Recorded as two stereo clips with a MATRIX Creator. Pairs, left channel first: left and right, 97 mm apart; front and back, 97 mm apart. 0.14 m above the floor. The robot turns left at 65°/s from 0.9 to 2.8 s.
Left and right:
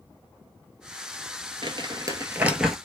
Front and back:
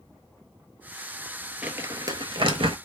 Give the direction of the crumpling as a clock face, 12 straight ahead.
4 o'clock.